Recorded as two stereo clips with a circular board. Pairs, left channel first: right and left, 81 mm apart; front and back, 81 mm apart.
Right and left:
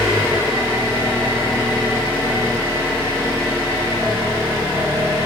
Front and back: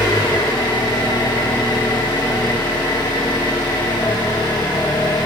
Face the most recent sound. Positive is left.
turn(degrees=30)